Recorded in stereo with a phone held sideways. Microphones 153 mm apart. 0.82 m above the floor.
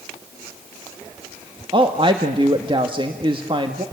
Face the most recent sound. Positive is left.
turn(degrees=-35)  # may be behind; listen again after turning